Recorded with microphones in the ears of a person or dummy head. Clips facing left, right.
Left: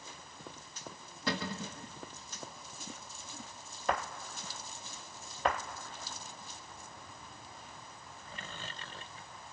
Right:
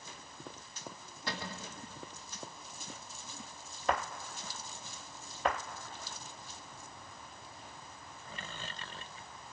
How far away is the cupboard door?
About 1.1 m.